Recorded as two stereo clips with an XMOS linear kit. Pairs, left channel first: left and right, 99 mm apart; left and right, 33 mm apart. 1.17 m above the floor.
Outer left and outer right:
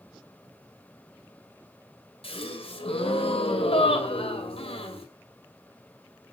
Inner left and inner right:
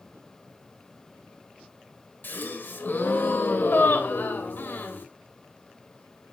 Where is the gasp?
70° left (ahead or behind), 2.5 m.